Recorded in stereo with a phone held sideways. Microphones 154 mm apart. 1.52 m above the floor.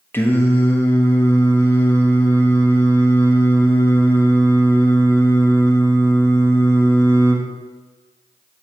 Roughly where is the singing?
Centre.